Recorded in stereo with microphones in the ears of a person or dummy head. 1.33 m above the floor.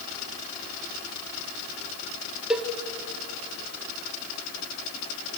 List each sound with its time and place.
2.5 s a cowbell: 5° right (ahead or behind), 1.0 m